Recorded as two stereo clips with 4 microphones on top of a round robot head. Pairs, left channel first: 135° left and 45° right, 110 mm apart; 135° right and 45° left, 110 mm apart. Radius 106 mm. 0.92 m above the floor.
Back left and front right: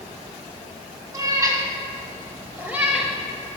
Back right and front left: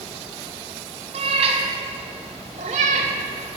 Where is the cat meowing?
10° left, 1.9 m; by 3.6 s 75° left, 0.7 m.